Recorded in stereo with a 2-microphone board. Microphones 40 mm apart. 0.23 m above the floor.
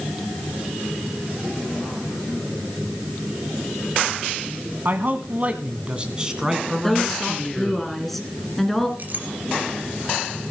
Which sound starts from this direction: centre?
A woman speaking, at 6.8 s.